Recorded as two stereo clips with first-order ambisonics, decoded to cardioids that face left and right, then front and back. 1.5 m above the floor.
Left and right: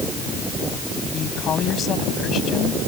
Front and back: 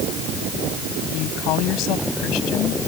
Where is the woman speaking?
30° left.